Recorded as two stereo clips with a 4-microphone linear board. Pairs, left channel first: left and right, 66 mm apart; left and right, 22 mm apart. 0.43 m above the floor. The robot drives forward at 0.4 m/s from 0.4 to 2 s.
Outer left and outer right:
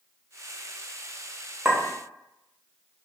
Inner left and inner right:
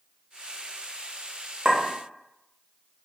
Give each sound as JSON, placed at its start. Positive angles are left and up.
{"t": 1.6, "sound": "a clink", "side_deg": -10, "distance_m": 1.1}